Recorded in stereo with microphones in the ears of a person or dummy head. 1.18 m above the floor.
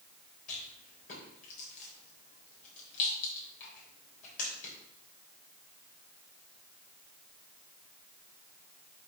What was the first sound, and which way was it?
A rattle, 45° left (ahead or behind).